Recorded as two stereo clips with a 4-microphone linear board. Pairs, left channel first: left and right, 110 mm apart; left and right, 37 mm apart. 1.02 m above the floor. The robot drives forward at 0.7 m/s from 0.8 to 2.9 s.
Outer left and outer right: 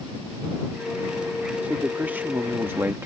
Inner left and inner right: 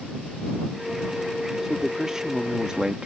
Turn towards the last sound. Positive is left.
turn(degrees=-25)  # may be behind; listen again after turning